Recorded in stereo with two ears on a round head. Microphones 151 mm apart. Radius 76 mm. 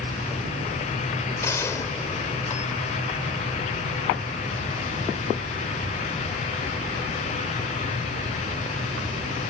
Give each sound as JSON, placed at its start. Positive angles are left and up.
{"t": 1.4, "sound": "a gunshot", "side_deg": 20}